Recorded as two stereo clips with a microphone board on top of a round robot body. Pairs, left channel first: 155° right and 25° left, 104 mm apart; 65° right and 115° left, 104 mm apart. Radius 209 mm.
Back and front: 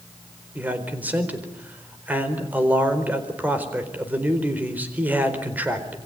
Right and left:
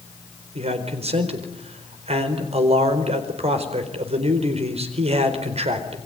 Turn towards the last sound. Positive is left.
turn(degrees=95)